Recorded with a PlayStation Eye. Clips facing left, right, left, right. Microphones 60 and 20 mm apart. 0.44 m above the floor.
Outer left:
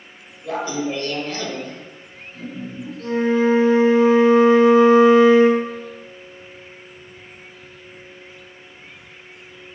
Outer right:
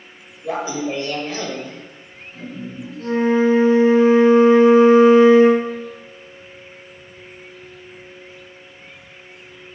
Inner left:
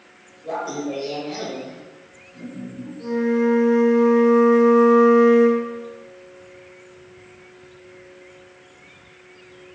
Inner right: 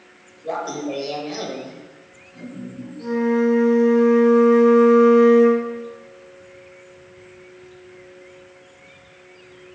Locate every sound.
0.4 s laughter: 20° right (ahead or behind), 1.4 m
3.0 s a flute: 25° right (ahead or behind), 2.5 m